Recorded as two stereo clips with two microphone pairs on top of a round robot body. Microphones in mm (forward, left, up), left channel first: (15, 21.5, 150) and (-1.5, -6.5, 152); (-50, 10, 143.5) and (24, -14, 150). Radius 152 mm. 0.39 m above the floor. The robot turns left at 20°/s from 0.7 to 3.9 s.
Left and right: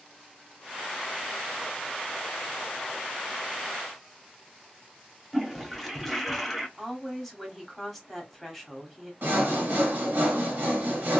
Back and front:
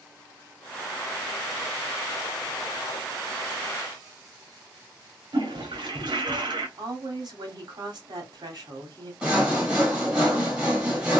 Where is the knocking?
I don't hear knocking.